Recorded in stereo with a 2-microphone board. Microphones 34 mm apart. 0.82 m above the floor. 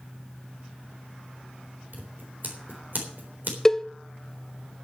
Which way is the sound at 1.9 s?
65° right (ahead or behind).